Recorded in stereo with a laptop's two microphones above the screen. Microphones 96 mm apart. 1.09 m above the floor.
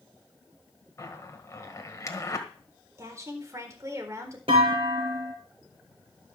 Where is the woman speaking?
35° right (ahead or behind), 4 m.